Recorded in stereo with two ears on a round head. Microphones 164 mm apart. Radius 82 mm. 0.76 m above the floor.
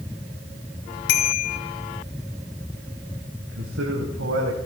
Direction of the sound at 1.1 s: 65° left (ahead or behind).